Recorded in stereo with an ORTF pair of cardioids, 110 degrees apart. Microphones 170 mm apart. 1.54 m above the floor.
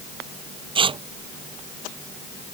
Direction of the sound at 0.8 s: 30° right.